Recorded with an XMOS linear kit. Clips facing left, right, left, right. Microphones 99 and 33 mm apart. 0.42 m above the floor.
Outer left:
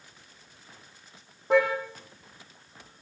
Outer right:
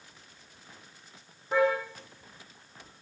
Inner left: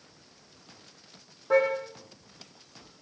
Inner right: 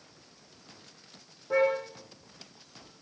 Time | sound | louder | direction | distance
1.5 | a car horn | outer left 3 dB, inner left 2 dB | 75° left (ahead or behind) | 8 m